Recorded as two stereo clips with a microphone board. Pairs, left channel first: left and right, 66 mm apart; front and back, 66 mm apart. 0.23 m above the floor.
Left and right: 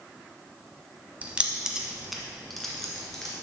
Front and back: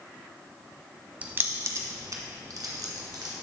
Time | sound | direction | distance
1.2 | keys jangling | 130° right | 0.7 m